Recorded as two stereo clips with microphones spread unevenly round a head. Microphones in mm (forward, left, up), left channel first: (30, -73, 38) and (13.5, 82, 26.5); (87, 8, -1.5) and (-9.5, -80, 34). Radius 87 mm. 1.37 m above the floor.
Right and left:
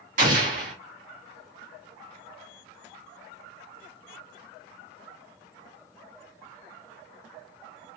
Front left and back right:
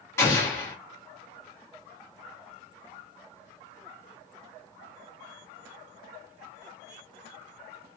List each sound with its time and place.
0.2 s an explosion: 125° left, 0.9 m